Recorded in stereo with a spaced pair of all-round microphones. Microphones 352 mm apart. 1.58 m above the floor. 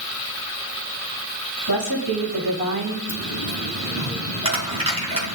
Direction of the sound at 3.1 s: 75° right (ahead or behind).